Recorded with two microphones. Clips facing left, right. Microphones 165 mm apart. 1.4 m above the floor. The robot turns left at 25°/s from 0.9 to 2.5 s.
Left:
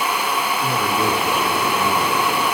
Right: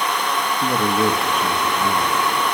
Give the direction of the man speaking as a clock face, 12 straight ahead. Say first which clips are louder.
Right 4 dB; 5 o'clock.